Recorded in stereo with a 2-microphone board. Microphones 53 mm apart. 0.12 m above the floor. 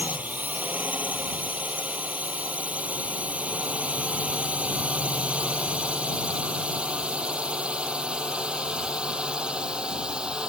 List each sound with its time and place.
0.0 s a drone: 35° right (ahead or behind); by 10.5 s 20° right (ahead or behind)